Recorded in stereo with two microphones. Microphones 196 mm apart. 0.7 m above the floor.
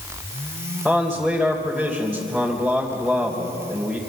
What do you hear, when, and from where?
0.8 s a man speaking: centre (ahead or behind), 3 m